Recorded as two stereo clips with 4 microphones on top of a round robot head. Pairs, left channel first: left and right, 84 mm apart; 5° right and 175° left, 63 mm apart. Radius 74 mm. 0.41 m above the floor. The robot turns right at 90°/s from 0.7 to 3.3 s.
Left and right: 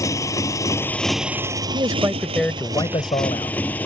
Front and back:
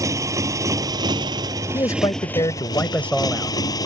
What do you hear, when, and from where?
0.0 s a motorcycle: 140° left; by 3.9 s 15° left
1.7 s a man speaking: 55° right; by 3.5 s 85° left